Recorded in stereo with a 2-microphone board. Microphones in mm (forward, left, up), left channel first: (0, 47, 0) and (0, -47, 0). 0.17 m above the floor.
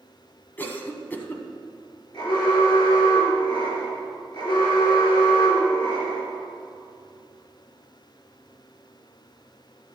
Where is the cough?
20° left (ahead or behind), 1.1 m.